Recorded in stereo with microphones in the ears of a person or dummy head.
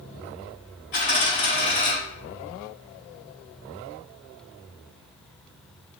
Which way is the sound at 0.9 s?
50° left (ahead or behind).